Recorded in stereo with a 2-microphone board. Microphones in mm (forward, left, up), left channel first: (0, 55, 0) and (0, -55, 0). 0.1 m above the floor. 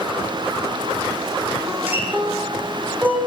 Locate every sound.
1.7 s a guitar: 15° right (ahead or behind), 5 m